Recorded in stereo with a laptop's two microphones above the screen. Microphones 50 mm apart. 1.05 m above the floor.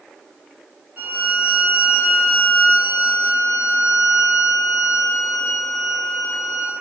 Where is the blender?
No blender in this recording.